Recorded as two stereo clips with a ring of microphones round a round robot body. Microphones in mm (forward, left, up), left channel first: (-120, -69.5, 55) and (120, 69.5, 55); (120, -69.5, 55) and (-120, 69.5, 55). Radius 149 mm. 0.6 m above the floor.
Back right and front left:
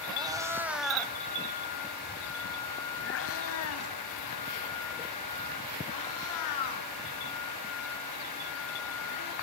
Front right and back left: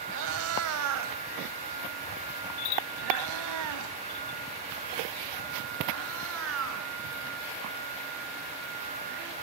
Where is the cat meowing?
105° left, 2 m; by 9.3 s 160° right, 6.5 m.